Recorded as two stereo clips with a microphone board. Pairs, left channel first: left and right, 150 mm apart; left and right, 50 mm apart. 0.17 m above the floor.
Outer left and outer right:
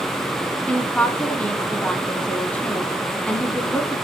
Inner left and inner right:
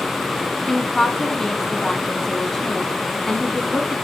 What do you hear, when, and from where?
0.7 s a woman speaking: 10° left (ahead or behind), 1.3 m